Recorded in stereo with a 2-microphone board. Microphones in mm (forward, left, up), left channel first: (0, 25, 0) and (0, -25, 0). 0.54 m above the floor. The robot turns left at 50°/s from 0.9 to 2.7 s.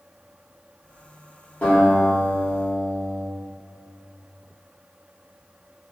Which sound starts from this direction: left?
A guitar, at 1.6 s.